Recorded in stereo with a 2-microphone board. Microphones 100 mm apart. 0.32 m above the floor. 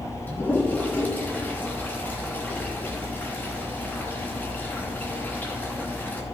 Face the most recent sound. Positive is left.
turn(degrees=20)  # may be behind; listen again after turning